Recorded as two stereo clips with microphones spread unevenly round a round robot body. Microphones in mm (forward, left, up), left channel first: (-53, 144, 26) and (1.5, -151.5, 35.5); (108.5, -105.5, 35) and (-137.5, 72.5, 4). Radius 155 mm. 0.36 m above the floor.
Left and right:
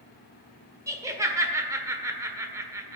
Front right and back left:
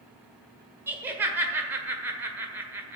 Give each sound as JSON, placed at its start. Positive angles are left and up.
{"t": 0.9, "sound": "laughter", "azimuth_deg": -155, "distance_m": 1.4}